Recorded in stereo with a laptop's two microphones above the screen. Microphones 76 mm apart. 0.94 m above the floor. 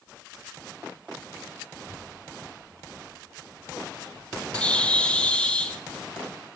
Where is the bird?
15° left (ahead or behind), 0.6 m.